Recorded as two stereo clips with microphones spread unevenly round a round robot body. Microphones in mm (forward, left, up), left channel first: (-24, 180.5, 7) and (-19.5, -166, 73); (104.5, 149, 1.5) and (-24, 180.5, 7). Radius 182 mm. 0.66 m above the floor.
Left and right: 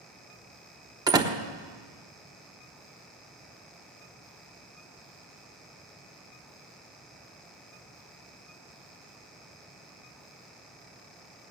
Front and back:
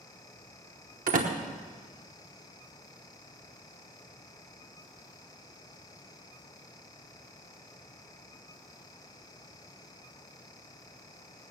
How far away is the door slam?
About 1.0 m.